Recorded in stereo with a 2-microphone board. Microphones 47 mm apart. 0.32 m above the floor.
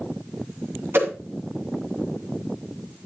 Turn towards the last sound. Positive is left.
turn(degrees=-55)  # may be behind; listen again after turning